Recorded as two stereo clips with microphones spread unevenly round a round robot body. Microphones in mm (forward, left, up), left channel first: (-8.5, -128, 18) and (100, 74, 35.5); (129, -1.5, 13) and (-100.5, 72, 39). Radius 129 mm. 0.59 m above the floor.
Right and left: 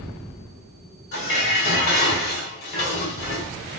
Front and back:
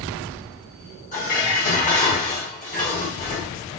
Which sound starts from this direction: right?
Dishes clattering, at 1.1 s.